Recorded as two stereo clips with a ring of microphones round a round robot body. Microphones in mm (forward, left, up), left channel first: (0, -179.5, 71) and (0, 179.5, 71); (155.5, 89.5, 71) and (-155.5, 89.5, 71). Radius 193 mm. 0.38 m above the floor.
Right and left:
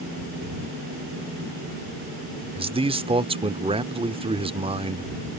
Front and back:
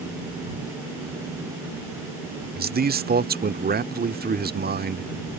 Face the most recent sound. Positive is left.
turn(degrees=150)